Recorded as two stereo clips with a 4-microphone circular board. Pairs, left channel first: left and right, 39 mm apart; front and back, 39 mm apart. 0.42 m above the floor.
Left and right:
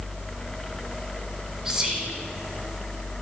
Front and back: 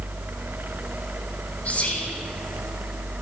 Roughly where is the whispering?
Ahead right.